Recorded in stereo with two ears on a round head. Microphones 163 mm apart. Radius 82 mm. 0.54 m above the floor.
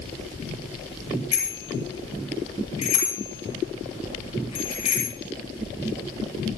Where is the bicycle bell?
30° left (ahead or behind), 9 m.